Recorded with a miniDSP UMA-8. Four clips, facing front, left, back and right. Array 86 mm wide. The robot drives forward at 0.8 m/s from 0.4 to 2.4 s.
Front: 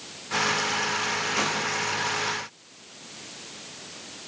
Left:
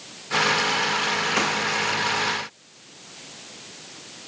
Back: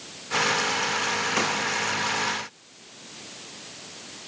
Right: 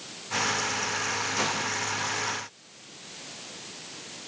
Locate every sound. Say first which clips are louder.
1.4 s a gunshot: left 4 dB, back 1 dB; 115° left, 6 m